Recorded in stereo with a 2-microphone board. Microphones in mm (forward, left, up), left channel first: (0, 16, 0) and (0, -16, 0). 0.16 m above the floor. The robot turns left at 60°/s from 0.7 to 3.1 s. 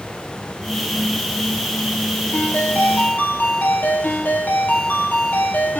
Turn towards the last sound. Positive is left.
turn(degrees=85)